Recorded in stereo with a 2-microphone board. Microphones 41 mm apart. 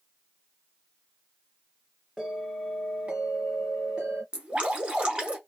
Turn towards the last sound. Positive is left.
turn(degrees=-25)  # may be behind; listen again after turning